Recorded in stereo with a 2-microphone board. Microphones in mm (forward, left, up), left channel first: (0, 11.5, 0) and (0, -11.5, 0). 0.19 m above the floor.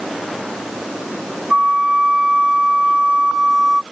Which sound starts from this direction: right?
A flute, at 1.5 s.